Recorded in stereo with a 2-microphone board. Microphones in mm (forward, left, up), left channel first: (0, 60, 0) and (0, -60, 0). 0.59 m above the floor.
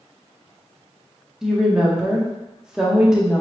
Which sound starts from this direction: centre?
A woman speaking, at 1.4 s.